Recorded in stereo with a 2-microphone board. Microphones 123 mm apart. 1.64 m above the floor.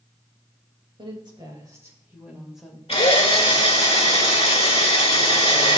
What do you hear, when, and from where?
1.0 s a woman speaking: 45° right (ahead or behind), 2.5 m; by 2.8 s 5° left (ahead or behind), 2 m
2.9 s a drill: 50° left (ahead or behind), 2 m